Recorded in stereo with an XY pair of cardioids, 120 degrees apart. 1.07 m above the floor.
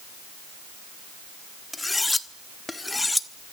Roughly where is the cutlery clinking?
Ahead.